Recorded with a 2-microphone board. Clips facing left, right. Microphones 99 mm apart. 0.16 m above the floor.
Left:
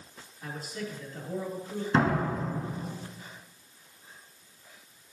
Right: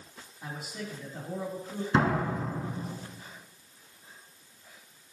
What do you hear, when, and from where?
0.4 s a man speaking: 15° right (ahead or behind), 3.5 m
1.9 s a door slam: 5° right (ahead or behind), 1.0 m